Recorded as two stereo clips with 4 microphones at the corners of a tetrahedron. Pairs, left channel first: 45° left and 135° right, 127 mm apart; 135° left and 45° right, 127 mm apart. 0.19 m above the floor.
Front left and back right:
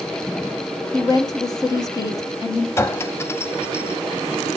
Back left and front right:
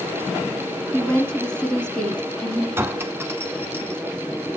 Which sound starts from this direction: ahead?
A clink, at 2.8 s.